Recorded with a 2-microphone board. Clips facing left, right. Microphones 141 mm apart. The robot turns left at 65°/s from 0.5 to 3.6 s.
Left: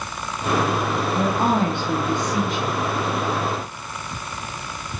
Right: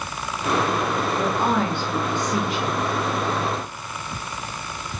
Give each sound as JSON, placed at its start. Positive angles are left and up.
{"t": 1.1, "sound": "a woman speaking", "azimuth_deg": 80, "distance_m": 1.8}